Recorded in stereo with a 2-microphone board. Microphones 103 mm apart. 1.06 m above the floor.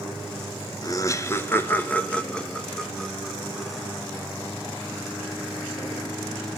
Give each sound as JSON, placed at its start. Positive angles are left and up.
{"t": 0.8, "sound": "laughter", "side_deg": 35, "distance_m": 1.2}